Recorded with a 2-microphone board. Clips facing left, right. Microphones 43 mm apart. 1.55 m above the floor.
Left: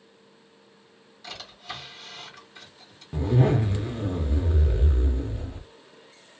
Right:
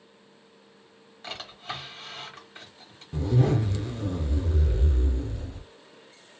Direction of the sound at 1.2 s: 40° right (ahead or behind).